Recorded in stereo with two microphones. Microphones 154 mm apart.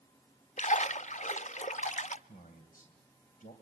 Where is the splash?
50° left (ahead or behind), 0.5 m.